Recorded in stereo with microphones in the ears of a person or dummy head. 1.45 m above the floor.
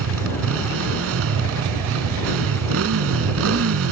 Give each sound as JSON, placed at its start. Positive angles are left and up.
{"t": 0.0, "sound": "a motorcycle", "side_deg": -85}